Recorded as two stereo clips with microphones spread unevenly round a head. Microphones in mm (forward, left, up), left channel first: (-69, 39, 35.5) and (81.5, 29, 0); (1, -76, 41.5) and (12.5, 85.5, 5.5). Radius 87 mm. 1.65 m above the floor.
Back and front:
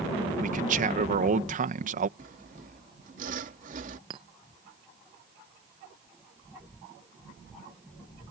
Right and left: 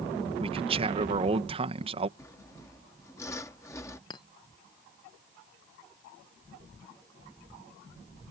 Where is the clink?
70° right.